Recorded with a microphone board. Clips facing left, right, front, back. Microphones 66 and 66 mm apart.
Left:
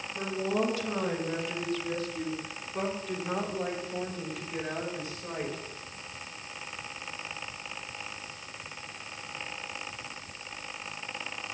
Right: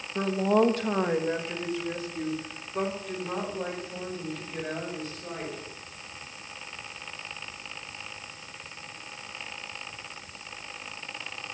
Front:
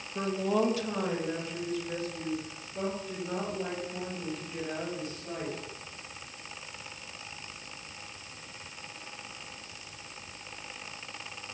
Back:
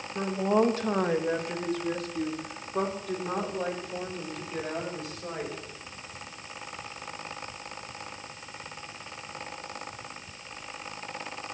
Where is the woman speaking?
100° right, 1.5 m; by 5.5 s 170° left, 6.5 m.